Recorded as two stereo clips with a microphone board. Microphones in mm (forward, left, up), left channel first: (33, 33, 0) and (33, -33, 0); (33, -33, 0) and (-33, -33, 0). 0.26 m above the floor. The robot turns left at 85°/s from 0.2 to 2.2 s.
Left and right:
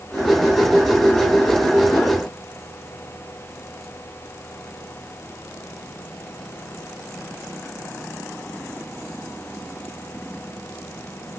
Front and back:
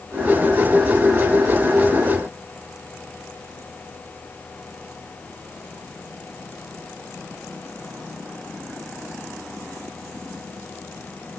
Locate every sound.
Only background noise.